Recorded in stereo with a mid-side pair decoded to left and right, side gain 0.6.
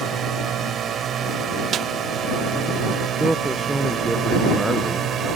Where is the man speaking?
15° right.